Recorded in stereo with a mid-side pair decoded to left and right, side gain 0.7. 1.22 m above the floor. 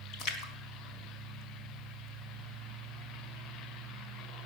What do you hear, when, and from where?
0.1 s a splash: 60° left, 4 m